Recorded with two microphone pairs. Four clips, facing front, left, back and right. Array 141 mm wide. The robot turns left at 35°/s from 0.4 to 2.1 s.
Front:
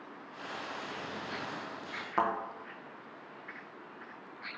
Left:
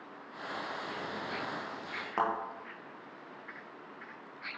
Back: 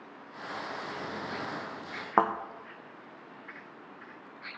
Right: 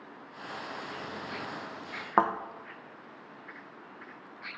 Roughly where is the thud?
Behind right.